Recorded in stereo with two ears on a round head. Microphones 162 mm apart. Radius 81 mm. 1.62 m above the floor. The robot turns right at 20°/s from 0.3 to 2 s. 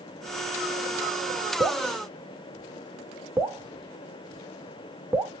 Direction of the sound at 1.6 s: 15° right (ahead or behind).